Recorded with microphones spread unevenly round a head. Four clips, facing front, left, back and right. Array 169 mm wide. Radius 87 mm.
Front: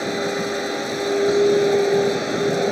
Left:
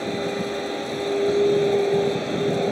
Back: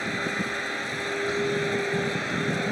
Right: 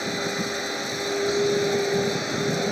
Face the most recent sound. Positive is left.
turn(degrees=20)